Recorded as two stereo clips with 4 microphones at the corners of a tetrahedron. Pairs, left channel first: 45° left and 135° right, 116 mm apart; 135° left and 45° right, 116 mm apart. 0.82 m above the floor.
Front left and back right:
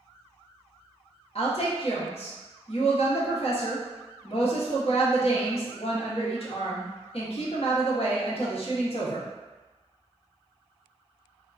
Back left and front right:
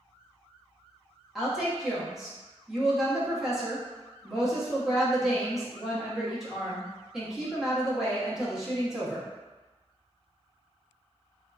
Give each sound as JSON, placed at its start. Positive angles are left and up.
{"t": 1.4, "sound": "a woman speaking", "azimuth_deg": 40, "distance_m": 0.9}